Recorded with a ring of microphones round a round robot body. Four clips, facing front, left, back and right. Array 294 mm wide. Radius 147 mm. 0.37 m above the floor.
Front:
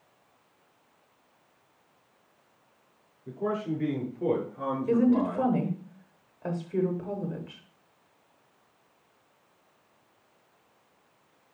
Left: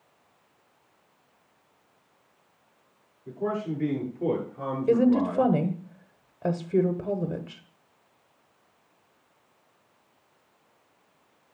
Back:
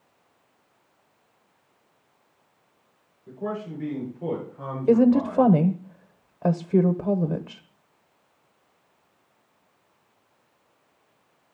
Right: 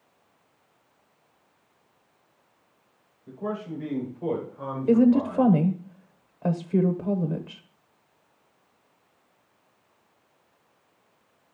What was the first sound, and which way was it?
A man speaking, 45° left.